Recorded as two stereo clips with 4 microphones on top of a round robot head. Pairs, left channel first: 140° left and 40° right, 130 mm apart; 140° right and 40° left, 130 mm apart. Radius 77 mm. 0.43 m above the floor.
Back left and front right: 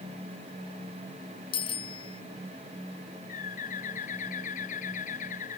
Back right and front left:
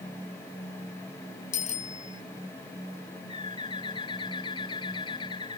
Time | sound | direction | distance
1.5 | a bicycle bell | 170° right | ?
3.3 | a bird | 165° left | ?